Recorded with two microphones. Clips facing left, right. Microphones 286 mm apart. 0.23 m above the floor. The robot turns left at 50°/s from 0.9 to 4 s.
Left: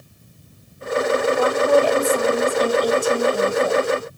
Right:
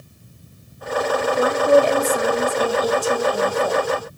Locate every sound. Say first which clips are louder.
1.4 s a woman speaking: right 4 dB; 25° right (ahead or behind), 1.0 m; by 3.9 s 15° left (ahead or behind), 1.0 m